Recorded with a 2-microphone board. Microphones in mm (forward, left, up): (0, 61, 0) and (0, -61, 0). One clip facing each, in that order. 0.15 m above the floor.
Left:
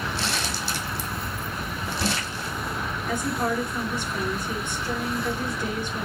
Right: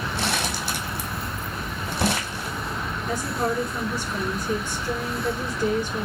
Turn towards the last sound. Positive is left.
turn(degrees=-40)  # may be behind; listen again after turning